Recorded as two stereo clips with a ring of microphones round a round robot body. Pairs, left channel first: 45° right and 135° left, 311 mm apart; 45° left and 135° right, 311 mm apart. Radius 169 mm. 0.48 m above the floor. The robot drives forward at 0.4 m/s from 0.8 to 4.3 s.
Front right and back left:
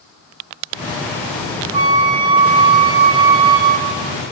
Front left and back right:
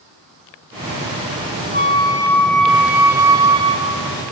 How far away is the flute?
About 0.7 m.